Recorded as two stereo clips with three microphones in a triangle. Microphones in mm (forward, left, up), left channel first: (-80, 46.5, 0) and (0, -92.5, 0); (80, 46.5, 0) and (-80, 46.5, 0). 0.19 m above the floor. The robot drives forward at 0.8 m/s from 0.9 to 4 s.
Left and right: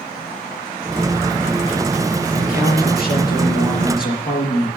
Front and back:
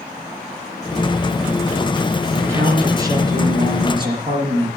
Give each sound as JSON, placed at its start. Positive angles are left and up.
{"t": 2.3, "sound": "a man speaking", "azimuth_deg": 105, "distance_m": 4.5}